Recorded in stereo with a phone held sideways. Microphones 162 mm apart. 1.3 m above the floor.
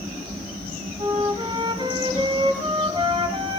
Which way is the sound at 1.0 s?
25° right (ahead or behind).